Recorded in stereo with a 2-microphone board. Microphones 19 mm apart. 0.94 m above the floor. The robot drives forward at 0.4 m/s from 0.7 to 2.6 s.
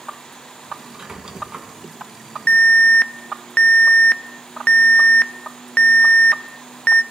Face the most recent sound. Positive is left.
turn(degrees=60)  # may be behind; listen again after turning